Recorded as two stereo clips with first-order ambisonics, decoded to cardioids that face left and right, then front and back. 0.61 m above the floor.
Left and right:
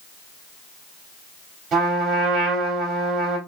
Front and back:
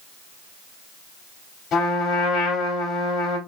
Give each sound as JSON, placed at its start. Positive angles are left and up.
{"t": 1.7, "sound": "a trumpet", "azimuth_deg": -45, "distance_m": 1.7}